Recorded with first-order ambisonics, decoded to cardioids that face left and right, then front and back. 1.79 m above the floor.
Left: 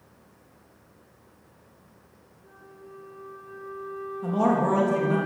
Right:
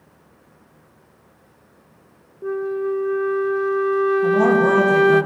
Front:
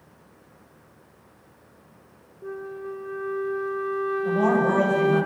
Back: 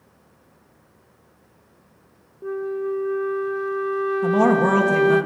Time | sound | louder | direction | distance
2.4 | a flute | right 26 dB, back 8 dB | 105° right | 0.5 m
4.2 | a man speaking | right 4 dB, back 4 dB | 170° right | 3.5 m